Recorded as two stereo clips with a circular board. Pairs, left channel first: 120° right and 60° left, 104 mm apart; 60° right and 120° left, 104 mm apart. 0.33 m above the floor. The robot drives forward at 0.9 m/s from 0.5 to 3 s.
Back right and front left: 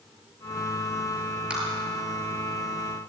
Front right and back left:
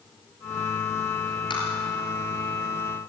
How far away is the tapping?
About 5 m.